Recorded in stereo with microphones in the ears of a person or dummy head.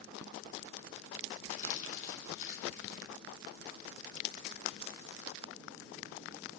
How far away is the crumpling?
About 3 m.